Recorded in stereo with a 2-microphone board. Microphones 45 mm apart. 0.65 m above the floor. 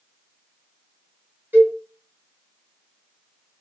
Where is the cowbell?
55° right (ahead or behind), 1.5 m.